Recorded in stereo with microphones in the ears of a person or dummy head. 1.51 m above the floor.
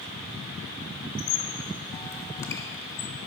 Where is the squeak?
20° left (ahead or behind), 0.5 m.